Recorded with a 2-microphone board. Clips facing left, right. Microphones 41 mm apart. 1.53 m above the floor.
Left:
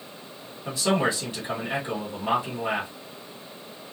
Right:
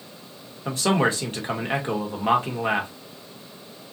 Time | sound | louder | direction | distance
0.7 | a man speaking | right 2 dB | 40° right (ahead or behind) | 1.5 m